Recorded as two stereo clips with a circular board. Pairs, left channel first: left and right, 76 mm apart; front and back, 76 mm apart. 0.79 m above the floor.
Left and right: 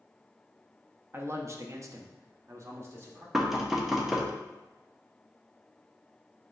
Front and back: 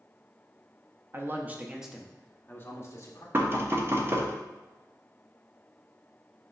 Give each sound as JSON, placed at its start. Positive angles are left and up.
{"t": 1.1, "sound": "a man speaking", "azimuth_deg": -135, "distance_m": 0.8}
{"t": 3.3, "sound": "knocking", "azimuth_deg": -170, "distance_m": 0.7}